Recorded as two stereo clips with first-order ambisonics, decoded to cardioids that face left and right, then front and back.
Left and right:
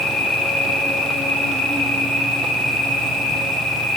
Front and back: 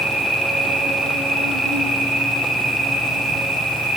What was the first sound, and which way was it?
An insect, 100° left.